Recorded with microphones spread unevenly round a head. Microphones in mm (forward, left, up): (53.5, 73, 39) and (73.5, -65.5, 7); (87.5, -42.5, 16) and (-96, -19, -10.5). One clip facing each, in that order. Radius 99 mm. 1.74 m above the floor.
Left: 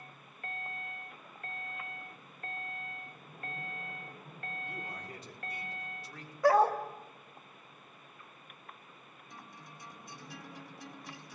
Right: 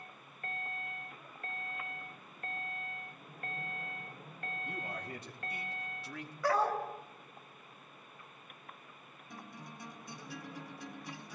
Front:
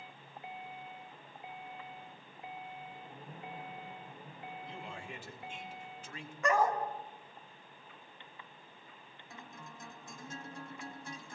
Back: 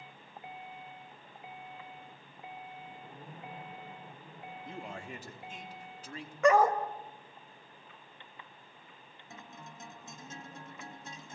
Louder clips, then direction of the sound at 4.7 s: Right 2 dB, back 3 dB; 140° right.